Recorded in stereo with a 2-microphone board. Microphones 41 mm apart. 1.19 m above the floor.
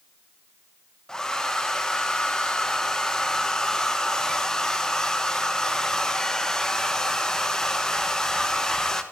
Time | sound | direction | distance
1.1 | a hair dryer | 15° left (ahead or behind) | 1.3 m